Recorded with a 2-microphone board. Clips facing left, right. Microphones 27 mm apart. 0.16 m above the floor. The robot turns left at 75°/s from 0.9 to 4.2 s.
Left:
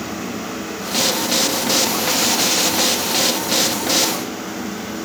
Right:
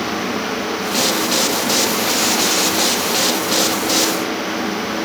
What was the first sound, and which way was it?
Only background noise.